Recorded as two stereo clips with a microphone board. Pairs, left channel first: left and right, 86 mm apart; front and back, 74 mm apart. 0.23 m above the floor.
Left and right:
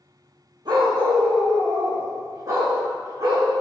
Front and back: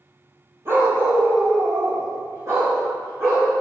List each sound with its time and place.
0.7 s a dog barking: 125° right, 3 m; by 3.5 s 135° right, 5.5 m